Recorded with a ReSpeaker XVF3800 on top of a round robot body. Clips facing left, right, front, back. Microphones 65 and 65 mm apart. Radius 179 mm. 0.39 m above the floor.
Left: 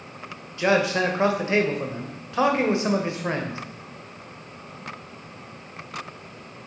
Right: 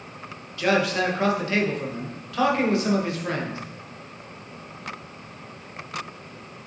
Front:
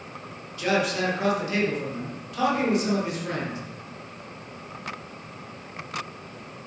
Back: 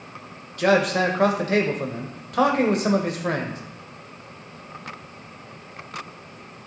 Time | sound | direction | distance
0.6 | a man speaking | 155° left | 1.8 m